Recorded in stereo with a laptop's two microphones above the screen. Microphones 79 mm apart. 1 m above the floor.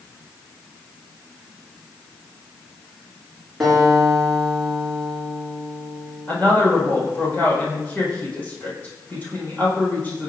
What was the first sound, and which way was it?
A guitar, 5° right (ahead or behind).